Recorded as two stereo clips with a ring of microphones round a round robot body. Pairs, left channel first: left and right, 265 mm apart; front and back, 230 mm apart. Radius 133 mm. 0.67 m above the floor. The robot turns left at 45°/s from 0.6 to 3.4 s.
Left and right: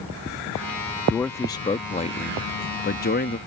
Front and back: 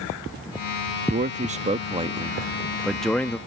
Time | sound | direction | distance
1.1 | a man speaking | 175° left | ?